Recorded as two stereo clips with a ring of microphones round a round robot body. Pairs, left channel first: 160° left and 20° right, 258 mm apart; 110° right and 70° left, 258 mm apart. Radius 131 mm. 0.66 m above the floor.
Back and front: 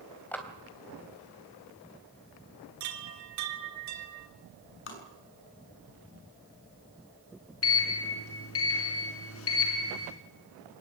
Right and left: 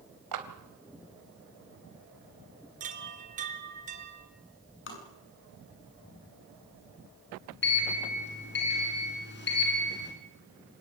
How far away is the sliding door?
About 5 m.